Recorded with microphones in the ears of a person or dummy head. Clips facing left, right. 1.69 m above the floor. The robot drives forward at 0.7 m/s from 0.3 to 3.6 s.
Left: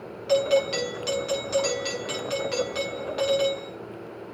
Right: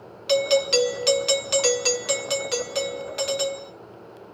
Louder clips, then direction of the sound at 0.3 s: Right 1 dB; 55° right (ahead or behind).